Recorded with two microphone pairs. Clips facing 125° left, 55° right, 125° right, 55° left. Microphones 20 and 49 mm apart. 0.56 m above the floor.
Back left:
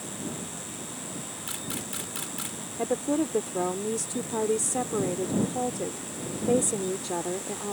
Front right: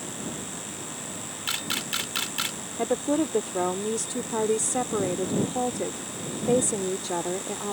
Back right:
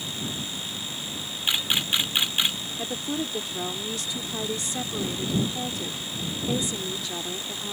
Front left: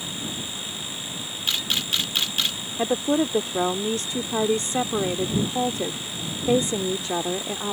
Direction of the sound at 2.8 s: 15° left.